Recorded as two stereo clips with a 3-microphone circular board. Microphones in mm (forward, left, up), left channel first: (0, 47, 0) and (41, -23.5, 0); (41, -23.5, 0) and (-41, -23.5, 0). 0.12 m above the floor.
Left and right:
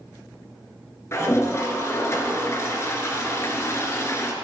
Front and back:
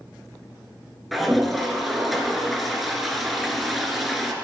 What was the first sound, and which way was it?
A toilet flushing, 90° left.